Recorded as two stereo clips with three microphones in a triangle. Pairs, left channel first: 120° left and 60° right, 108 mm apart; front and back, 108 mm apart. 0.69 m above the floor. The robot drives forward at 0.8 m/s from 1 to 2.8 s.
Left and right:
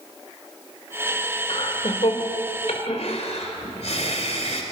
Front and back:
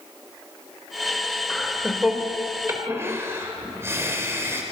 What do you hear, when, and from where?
1.5 s laughter: 90° left, 2 m; by 4.6 s 115° left, 2.5 m